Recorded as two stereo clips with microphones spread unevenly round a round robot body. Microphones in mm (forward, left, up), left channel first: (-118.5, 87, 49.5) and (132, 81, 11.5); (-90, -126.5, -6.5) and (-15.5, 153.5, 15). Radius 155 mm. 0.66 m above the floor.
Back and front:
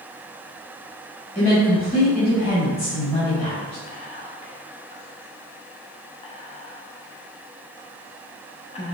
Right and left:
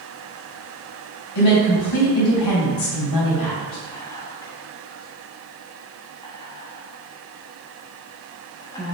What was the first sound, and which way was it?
A woman speaking, 110° right.